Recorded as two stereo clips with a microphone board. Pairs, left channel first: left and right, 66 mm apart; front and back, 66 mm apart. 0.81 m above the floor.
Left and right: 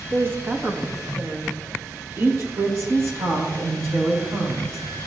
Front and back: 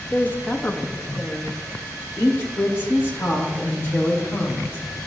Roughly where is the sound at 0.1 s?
Ahead right.